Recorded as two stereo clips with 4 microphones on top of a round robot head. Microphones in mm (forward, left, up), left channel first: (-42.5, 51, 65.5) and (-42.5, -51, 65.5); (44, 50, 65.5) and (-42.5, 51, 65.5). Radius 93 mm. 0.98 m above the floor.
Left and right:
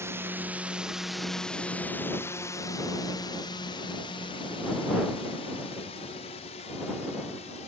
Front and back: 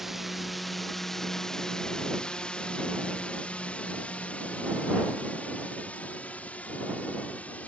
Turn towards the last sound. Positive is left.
turn(degrees=75)